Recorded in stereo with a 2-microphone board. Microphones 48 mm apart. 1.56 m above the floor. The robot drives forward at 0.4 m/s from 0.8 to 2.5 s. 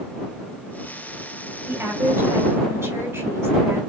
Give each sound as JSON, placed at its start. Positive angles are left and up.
{"t": 1.7, "sound": "a woman speaking", "side_deg": -80, "distance_m": 2.5}